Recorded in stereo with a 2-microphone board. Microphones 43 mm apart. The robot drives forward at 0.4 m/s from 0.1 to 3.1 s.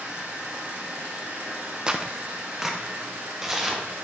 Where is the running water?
50° right (ahead or behind), 3 m; by 4.0 s 70° right (ahead or behind), 2 m.